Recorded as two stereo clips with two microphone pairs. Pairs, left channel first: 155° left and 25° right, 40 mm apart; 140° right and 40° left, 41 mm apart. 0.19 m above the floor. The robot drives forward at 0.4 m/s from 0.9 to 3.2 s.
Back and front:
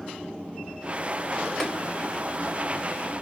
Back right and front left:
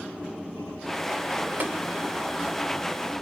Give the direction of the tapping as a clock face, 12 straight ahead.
10 o'clock.